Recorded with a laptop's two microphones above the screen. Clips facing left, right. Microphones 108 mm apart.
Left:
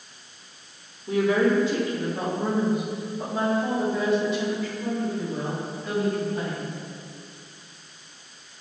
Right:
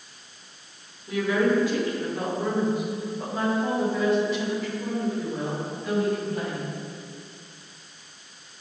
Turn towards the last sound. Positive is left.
turn(degrees=-10)  # may be behind; listen again after turning